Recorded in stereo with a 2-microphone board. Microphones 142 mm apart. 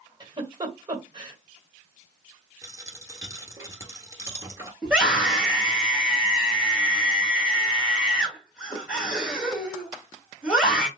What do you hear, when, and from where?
0.2 s a giggle: 30° right (ahead or behind), 1.4 m
2.6 s a dropped coin: 20° right (ahead or behind), 1.3 m
4.8 s a scream: 5° right (ahead or behind), 2.5 m